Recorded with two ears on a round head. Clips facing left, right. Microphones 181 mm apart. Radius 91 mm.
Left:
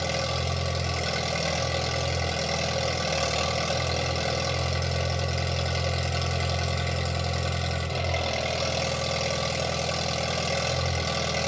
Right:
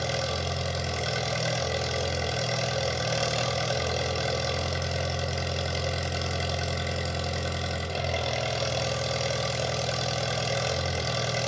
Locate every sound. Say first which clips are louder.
0.0 s an engine running: left 1 dB; 10° right (ahead or behind), 1.4 m